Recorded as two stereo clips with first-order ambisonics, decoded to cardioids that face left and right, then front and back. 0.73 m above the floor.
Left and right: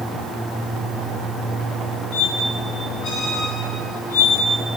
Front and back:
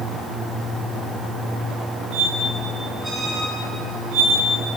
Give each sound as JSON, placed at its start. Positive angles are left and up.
{"t": 2.1, "sound": "a squeak", "azimuth_deg": 115, "distance_m": 3.0}